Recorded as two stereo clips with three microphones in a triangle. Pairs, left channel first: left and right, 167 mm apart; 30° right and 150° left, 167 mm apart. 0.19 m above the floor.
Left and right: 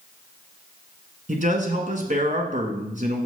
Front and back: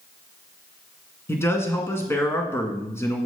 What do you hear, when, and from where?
1.3 s a man speaking: 100° right, 2.0 m